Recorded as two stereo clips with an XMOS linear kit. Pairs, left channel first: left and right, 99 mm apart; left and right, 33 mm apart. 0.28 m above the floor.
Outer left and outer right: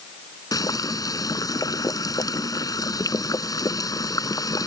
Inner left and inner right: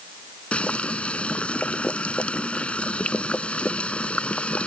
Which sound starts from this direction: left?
Boiling, at 0.5 s.